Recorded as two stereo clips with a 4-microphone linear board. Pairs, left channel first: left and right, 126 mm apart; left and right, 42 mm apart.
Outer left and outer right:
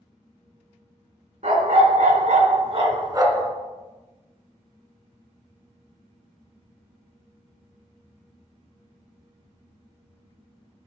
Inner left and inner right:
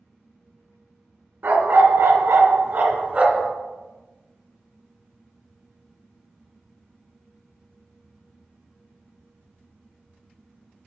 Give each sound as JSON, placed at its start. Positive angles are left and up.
{"t": 1.4, "sound": "a dog barking", "side_deg": -70, "distance_m": 1.9}